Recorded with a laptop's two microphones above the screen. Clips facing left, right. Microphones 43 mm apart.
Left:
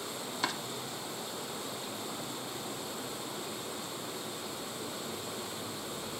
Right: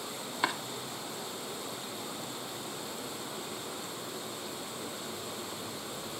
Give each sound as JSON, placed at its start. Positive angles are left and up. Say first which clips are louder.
{"t": 0.4, "sound": "chopping", "louder": "right 3 dB", "side_deg": -20, "distance_m": 0.8}